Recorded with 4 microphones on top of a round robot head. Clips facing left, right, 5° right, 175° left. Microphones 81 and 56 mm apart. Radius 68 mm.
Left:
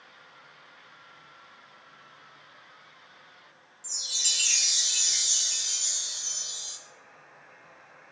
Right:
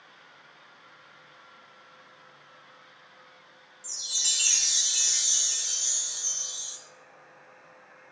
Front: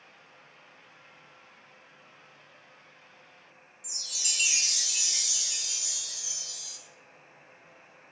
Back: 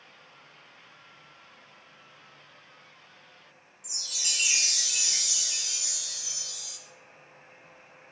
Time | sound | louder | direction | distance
3.8 | a chime | left 1 dB, back 2 dB | 135° right | 1.9 m